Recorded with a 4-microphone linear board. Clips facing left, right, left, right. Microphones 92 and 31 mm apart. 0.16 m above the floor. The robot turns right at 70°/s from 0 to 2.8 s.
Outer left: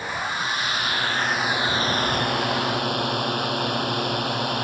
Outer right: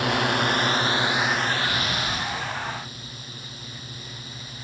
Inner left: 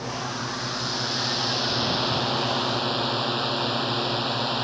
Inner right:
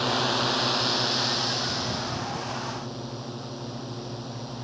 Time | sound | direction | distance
0.0 | a drone | 95° right | ?